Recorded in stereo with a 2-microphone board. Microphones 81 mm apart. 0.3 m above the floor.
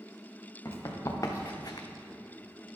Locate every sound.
0.7 s running footsteps: 40° left (ahead or behind), 2.5 m; by 1.9 s 55° left (ahead or behind), 0.8 m